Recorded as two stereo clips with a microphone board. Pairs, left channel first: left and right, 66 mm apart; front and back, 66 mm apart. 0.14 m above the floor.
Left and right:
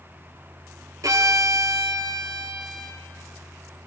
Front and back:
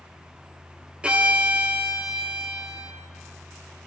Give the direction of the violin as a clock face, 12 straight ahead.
4 o'clock.